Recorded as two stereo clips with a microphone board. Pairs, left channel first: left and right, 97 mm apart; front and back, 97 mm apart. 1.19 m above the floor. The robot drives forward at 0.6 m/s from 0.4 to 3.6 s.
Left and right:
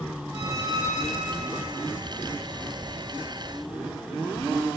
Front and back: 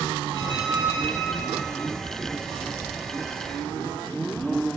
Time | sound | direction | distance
0.3 | a squeak | 145° right | 4 m